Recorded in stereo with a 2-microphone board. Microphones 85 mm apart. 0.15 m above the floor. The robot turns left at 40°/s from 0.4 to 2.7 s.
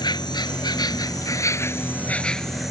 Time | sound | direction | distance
0.0 | an insect | 90° left | ?